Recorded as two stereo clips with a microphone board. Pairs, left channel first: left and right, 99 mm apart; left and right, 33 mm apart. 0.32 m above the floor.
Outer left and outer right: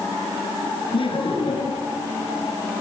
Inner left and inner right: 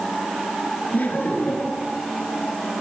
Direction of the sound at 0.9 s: 65° left (ahead or behind).